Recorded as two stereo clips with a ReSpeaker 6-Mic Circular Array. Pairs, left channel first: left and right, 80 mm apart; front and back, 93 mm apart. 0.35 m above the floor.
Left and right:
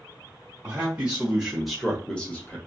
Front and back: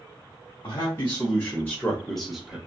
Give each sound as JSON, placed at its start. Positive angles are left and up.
{"t": 0.6, "sound": "a man speaking", "azimuth_deg": -30, "distance_m": 1.5}